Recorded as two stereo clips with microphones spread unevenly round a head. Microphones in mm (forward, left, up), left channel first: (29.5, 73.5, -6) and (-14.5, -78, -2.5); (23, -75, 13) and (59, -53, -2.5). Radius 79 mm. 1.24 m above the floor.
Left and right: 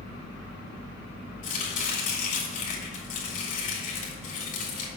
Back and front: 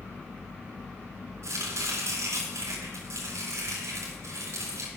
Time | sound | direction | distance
1.4 | chopping | 30° left | 2.5 m